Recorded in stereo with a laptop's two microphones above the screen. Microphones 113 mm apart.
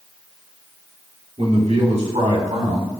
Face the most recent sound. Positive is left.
turn(degrees=-75)  # may be behind; listen again after turning